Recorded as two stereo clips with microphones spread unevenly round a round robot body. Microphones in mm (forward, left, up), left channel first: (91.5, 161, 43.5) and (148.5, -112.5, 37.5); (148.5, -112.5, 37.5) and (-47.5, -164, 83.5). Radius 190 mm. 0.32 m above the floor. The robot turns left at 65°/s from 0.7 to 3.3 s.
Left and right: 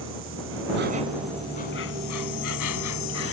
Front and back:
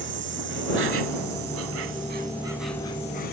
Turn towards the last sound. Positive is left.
turn(degrees=60)